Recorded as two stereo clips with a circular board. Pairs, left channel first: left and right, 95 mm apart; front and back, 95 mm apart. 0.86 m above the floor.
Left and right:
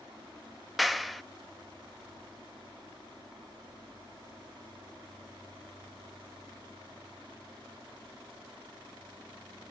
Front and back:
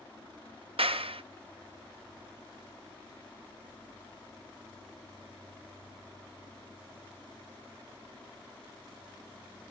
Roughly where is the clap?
Behind.